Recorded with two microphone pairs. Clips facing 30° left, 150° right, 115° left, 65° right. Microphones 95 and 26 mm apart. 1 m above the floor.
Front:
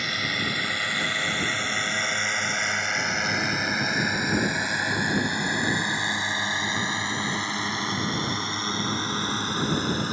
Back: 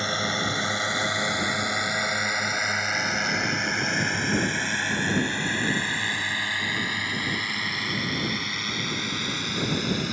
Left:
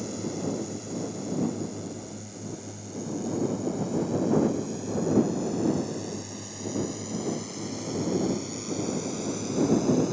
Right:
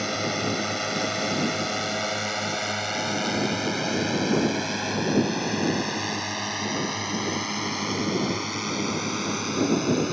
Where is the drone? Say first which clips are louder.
Back 3 dB, right 6 dB; 90° right; by 10.1 s 25° right.